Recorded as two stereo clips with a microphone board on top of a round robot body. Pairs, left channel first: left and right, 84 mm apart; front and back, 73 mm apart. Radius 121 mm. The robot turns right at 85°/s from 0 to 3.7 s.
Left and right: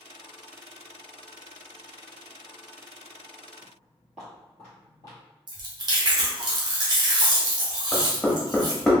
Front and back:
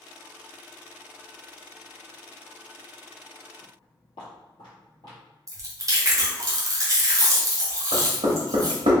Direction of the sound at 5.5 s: 130° right.